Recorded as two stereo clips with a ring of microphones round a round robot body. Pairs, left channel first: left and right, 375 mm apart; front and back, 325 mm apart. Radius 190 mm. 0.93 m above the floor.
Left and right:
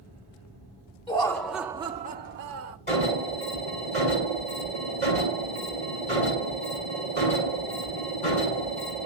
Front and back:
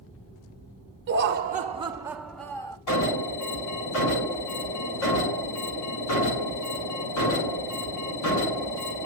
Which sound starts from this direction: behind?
Laughter, at 1.1 s.